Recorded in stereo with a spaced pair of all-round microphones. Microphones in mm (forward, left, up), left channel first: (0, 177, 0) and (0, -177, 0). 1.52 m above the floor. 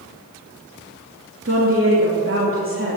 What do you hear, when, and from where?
1.4 s a woman speaking: 40° right (ahead or behind), 3 m